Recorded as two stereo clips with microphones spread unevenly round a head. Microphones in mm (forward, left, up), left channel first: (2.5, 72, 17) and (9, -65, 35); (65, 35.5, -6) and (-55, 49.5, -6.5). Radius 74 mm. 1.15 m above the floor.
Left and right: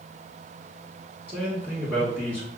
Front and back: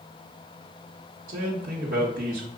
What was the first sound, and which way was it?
A man speaking, 170° right.